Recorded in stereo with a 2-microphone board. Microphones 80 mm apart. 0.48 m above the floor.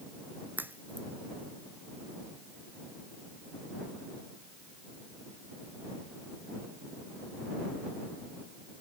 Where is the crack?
20° right (ahead or behind).